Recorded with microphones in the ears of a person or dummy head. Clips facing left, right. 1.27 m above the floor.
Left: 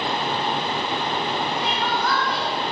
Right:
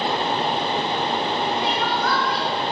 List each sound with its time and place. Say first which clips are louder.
1.6 s crying: right 1 dB; 40° left (ahead or behind), 5 m